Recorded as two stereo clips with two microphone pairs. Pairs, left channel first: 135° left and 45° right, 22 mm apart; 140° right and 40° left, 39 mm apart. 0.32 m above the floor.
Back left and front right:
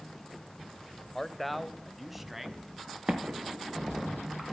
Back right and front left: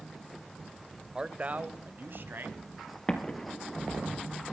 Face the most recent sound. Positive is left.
turn(degrees=-75)